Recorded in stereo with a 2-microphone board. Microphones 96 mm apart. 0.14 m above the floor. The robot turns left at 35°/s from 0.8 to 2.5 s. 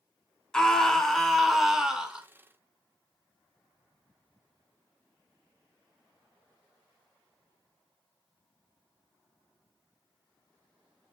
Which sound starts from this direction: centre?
A scream, at 0.5 s.